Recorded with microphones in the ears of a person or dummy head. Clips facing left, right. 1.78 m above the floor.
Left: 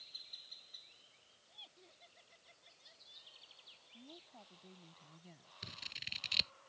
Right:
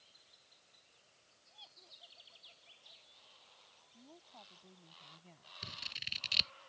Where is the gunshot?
I don't hear a gunshot.